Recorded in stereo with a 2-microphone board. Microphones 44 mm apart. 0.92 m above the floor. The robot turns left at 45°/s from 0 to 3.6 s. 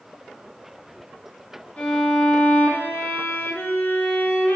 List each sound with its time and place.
1.8 s a violin: 145° left, 2 m; by 4.6 s 60° left, 2 m